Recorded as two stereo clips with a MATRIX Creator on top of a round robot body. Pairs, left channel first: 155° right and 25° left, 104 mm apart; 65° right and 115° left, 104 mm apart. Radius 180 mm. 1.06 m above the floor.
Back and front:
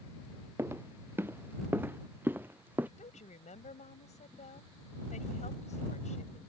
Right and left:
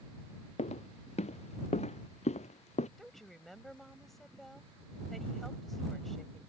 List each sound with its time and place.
0.6 s footsteps: 45° right; by 2.9 s 50° right
3.0 s a woman speaking: 155° right